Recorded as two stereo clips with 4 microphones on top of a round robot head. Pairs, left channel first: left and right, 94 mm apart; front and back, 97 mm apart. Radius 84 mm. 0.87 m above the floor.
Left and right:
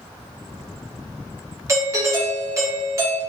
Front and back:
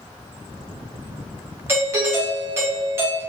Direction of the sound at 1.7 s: 130° right.